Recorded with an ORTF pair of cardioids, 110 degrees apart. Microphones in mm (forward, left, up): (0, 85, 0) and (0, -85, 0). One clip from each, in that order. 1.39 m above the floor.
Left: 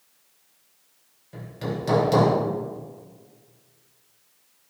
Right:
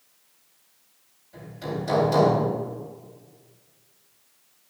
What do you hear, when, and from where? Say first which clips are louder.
1.3 s hammering: left 1 dB; 65° left, 3 m